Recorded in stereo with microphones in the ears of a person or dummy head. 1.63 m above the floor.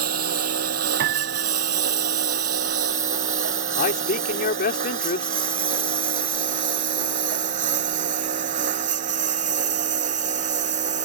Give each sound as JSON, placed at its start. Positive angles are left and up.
{"t": 0.0, "sound": "a lawn mower", "side_deg": -55}
{"t": 1.0, "sound": "a piano", "side_deg": -60}
{"t": 3.8, "sound": "a man speaking", "side_deg": 50}